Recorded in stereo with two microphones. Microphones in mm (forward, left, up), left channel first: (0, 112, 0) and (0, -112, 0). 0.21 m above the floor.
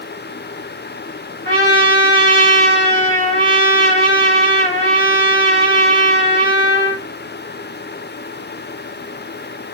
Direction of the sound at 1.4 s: 55° left (ahead or behind).